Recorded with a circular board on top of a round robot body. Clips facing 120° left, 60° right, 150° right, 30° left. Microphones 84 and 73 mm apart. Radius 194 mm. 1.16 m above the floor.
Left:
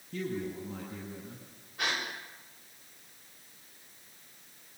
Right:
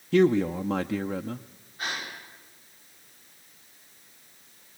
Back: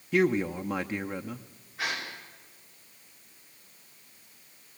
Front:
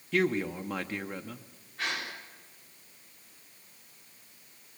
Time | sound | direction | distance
0.1 | a man speaking | 70° right | 0.7 m
1.8 | a gasp | 130° left | 6.5 m